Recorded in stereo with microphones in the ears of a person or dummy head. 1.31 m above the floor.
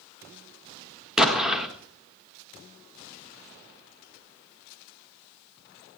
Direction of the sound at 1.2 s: Centre (ahead or behind).